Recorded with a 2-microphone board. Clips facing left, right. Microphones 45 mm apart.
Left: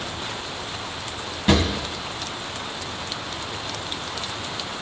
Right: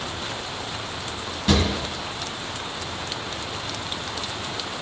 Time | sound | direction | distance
1.5 | a drawer | 30° left (ahead or behind) | 1.3 m